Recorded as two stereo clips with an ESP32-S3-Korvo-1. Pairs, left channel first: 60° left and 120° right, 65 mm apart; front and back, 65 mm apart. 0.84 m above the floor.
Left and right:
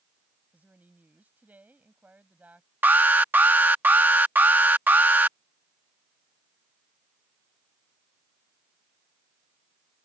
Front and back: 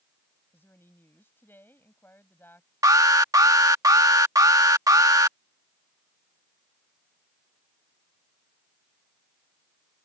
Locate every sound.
0.5 s a woman speaking: 55° right
2.8 s an alarm: straight behind